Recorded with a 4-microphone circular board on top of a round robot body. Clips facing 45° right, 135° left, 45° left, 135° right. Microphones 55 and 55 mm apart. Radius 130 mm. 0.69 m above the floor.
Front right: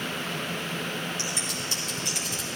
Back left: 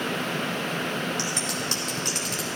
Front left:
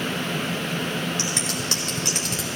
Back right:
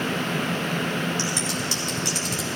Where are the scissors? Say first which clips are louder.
Back left 3 dB, back right 1 dB; 95° left, 0.8 m.